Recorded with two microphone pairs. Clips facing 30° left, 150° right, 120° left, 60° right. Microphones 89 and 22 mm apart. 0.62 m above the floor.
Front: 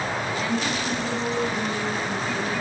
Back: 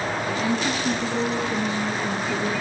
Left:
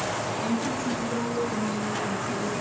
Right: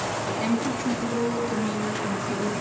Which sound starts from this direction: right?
A woman speaking, at 0.3 s.